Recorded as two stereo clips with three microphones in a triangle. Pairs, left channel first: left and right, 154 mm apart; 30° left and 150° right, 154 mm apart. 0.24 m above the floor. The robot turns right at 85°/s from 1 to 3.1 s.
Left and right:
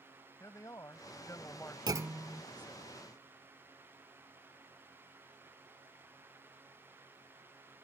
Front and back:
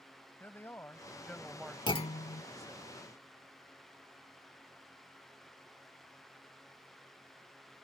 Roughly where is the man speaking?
Left.